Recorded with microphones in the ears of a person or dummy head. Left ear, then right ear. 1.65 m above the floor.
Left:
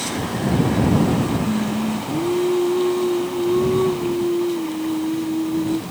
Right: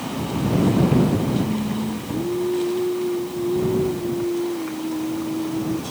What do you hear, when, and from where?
1.4 s singing: 55° left (ahead or behind)